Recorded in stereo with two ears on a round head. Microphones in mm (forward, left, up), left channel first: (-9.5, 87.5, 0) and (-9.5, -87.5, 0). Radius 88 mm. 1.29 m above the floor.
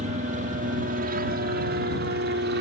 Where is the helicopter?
40° right (ahead or behind); by 2.6 s 60° right (ahead or behind).